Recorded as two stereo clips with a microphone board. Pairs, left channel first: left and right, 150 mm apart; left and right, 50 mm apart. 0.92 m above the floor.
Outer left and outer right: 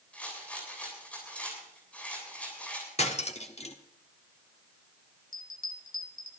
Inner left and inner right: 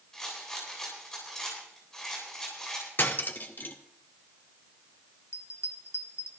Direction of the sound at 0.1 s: 10° left (ahead or behind).